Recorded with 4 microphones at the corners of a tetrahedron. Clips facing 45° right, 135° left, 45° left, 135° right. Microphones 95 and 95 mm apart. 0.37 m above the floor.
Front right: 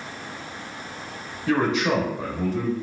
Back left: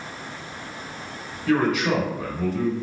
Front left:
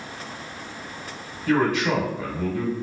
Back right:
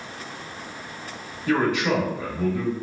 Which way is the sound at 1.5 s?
85° right.